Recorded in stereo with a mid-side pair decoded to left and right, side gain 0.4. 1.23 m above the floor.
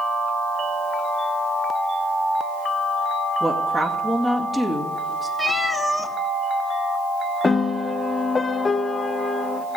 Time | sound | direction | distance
3.4 | a woman speaking | 10° left | 2 m
5.4 | a cat meowing | 5° left | 1.4 m
7.4 | a piano | 30° left | 0.8 m